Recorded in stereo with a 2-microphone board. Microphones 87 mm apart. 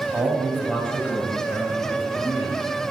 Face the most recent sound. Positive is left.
turn(degrees=55)  # may be behind; listen again after turning